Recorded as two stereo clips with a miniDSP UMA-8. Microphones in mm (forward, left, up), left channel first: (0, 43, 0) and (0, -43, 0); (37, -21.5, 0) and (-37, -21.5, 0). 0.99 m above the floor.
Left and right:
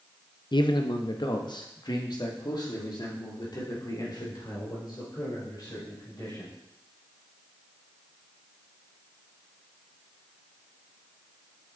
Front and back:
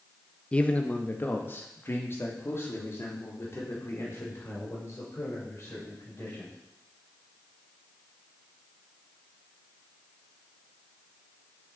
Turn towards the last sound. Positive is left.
turn(degrees=50)